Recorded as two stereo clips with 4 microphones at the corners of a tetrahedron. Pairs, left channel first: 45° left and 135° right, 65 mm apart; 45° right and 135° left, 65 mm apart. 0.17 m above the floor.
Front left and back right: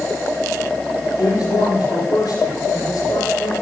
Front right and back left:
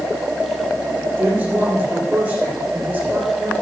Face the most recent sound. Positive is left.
turn(degrees=65)